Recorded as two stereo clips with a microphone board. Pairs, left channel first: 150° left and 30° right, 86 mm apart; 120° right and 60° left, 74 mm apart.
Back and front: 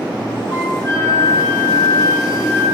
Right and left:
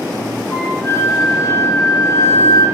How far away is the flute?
About 1.3 m.